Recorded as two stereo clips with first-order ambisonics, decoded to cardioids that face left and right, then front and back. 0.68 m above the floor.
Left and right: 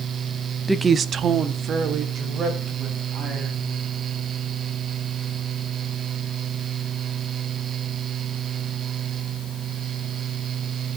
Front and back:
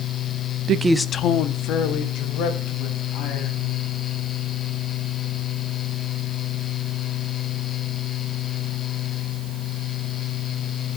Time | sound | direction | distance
0.7 | a woman speaking | straight behind | 0.6 m